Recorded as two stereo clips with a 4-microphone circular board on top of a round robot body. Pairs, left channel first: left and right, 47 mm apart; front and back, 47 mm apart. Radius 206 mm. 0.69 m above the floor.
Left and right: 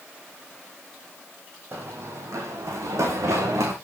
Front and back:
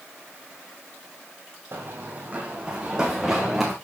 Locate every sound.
1.7 s running footsteps: 135° right, 1.9 m; by 3.7 s 95° right, 3.5 m